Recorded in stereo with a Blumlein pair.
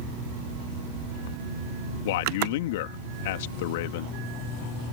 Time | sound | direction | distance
2.0 | a man speaking | 50° left | ?